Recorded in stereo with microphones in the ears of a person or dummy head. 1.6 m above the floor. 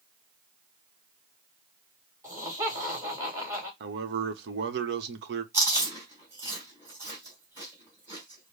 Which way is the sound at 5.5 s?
10° right (ahead or behind).